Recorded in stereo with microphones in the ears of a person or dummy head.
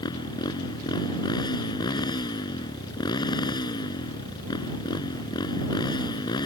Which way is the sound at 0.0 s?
25° left (ahead or behind).